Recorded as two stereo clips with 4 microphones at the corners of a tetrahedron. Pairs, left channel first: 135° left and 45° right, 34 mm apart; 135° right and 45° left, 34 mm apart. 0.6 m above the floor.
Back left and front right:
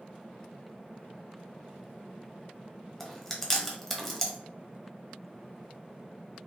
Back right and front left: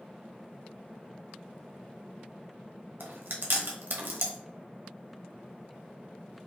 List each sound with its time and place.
3.0 s chewing: 50° left, 1.0 m